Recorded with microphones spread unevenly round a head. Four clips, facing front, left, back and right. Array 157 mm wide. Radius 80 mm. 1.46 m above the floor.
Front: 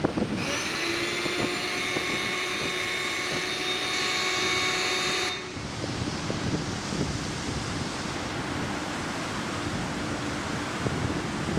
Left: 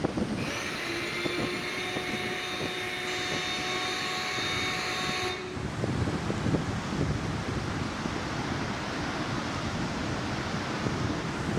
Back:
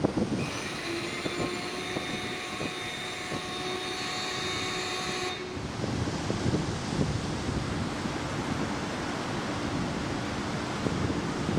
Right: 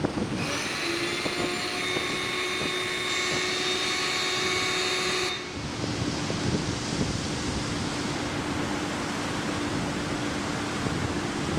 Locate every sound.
0.4 s a blender: 35° right, 1.2 m